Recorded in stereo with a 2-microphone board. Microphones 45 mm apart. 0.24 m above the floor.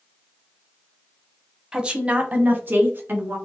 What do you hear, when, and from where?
1.7 s a woman speaking: 15° right (ahead or behind), 1.2 m; by 3.4 s 50° right (ahead or behind), 2.5 m